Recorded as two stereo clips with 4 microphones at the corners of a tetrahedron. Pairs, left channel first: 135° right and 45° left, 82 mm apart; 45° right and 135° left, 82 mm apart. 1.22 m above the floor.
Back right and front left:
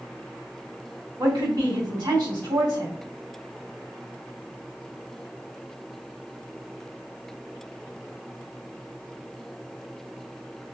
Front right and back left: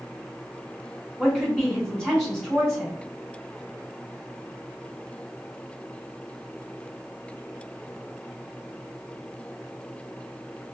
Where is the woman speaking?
40° left, 2 m.